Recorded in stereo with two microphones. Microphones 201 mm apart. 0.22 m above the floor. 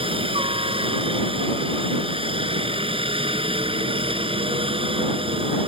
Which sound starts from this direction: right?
A helicopter, at 0.0 s.